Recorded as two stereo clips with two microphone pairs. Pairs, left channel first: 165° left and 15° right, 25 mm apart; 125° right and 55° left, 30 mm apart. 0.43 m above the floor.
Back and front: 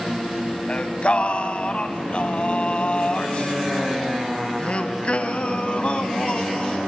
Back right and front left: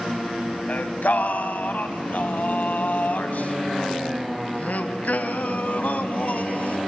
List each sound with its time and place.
0.7 s singing: 150° right, 0.9 m